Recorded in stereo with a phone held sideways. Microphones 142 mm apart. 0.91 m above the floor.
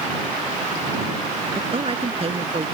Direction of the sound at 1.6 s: 40° right (ahead or behind).